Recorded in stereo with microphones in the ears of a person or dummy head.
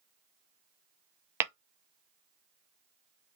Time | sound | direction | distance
1.4 | tapping | 15° right (ahead or behind) | 0.6 m